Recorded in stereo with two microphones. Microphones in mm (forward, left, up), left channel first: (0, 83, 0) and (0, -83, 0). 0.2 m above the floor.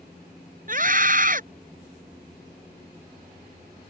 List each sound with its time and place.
0.7 s a scream: 55° right (ahead or behind)